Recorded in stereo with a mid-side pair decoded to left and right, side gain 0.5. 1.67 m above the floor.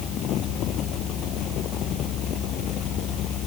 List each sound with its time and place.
0.0 s a fan: 65° left